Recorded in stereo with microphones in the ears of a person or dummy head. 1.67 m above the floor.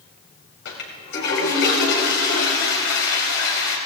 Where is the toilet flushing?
65° left (ahead or behind), 3.5 m.